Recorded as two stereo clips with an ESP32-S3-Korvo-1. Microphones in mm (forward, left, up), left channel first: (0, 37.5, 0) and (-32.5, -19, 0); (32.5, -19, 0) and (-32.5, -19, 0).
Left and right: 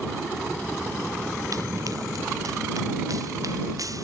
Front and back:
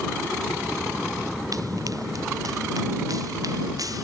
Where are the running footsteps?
150° right.